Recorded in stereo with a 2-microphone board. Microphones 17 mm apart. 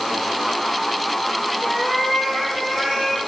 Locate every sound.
1.6 s a cat meowing: 5° left (ahead or behind), 9 m; by 3.2 s 10° left (ahead or behind), 9.5 m